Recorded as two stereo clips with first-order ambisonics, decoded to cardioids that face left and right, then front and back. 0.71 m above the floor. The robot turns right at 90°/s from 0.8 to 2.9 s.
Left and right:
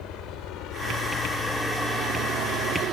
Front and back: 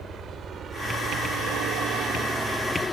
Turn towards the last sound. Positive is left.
turn(degrees=-65)